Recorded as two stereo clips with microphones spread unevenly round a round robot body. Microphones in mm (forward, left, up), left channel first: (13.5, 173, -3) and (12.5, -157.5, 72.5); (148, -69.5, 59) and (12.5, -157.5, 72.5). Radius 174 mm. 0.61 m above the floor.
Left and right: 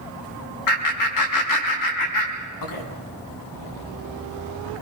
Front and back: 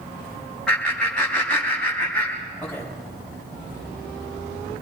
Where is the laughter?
120° left, 4 m.